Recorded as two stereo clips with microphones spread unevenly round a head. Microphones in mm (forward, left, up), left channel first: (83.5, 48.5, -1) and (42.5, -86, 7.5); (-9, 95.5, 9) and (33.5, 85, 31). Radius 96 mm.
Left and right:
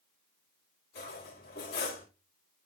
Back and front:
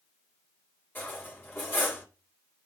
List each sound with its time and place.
0.9 s cutlery clinking: 110° left, 2.0 m